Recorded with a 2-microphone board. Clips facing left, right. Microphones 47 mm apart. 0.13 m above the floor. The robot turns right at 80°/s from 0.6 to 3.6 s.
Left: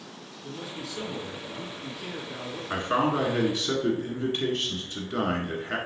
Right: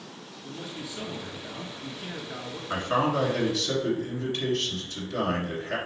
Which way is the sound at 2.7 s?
5° right (ahead or behind).